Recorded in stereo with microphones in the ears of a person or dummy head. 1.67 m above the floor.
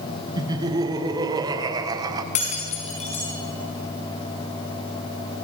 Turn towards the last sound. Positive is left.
turn(degrees=35)  # may be behind; listen again after turning